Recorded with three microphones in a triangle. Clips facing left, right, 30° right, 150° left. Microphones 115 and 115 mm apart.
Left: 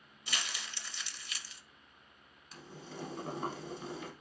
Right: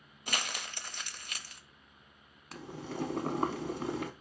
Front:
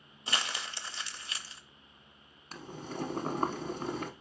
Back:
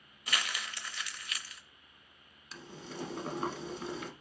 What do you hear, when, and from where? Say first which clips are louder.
0.3 s crumpling: right 4 dB, front 1 dB; 85° right, 0.6 m
2.5 s boiling: right 7 dB, front 4 dB; 75° right, 0.9 m